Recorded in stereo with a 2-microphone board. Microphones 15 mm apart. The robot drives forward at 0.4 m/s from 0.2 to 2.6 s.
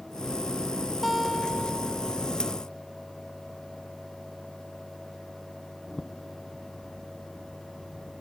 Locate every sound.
1.0 s a guitar: 10° left (ahead or behind)